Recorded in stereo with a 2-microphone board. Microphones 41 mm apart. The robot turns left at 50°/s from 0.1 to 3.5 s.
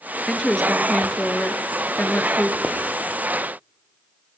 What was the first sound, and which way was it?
A woman speaking, 175° left.